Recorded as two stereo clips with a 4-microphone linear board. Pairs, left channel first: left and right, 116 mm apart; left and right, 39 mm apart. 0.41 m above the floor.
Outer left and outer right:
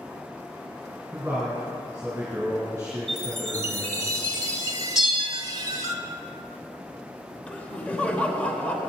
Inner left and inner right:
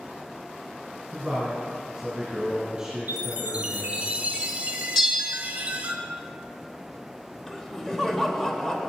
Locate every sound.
1.1 s a man speaking: 15° right (ahead or behind), 2.5 m
3.1 s a chime: 30° right (ahead or behind), 0.9 m
5.0 s a bell: 5° right (ahead or behind), 1.4 m
7.5 s laughter: 10° left (ahead or behind), 1.1 m